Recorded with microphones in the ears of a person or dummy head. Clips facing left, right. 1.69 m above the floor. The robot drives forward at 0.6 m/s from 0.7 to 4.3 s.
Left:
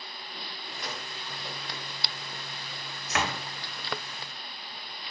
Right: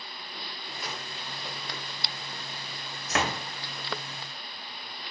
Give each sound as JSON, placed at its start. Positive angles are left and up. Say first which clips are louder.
{"t": 0.8, "sound": "a gunshot", "louder": "even", "side_deg": -5, "distance_m": 1.5}
{"t": 3.1, "sound": "a door slam", "louder": "right 2 dB", "side_deg": -40, "distance_m": 0.8}